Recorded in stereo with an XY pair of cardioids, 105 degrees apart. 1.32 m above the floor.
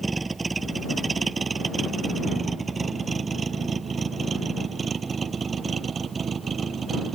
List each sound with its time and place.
0.0 s a vehicle: 25° right; by 7.2 s 45° right